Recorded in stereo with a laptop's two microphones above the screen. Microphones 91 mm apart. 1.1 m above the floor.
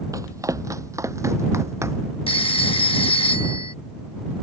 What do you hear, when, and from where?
0.1 s running footsteps: 35° right (ahead or behind); by 2.2 s 30° right (ahead or behind)
2.3 s a phone ringing: 80° left